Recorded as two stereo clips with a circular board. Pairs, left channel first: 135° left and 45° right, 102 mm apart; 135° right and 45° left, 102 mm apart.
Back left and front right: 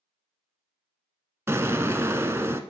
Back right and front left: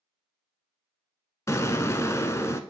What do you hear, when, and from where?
1.5 s an explosion: 95° right, 0.5 m